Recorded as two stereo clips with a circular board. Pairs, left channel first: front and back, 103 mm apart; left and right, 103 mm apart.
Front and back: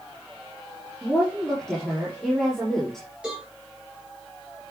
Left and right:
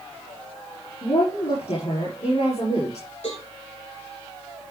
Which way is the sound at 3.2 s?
100° left.